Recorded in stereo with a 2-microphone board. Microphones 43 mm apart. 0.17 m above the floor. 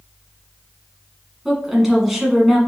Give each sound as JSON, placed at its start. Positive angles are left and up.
{"t": 1.4, "sound": "a woman speaking", "side_deg": -5, "distance_m": 1.5}